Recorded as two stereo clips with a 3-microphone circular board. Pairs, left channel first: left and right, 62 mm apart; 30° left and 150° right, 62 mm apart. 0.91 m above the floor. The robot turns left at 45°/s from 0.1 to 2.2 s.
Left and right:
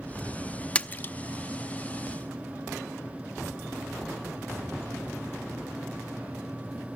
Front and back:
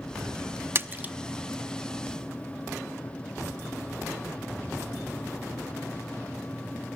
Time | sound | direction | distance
0.8 | a splash | 160° left | 0.6 m